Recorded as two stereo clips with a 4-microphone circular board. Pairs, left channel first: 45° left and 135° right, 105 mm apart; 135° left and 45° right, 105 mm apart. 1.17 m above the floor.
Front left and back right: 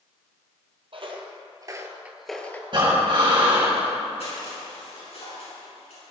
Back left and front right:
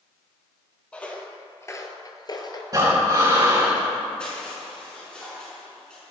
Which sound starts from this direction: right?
Breathing, at 2.7 s.